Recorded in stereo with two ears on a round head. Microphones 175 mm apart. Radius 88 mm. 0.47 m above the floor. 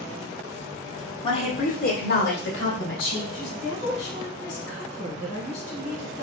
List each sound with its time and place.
1.2 s a woman speaking: 25° left (ahead or behind), 0.9 m; by 3.2 s 70° left (ahead or behind), 2.5 m
3.3 s a woman speaking: 60° left (ahead or behind), 1.5 m